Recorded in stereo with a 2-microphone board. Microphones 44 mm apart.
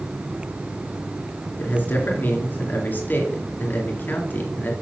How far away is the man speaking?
About 2.5 m.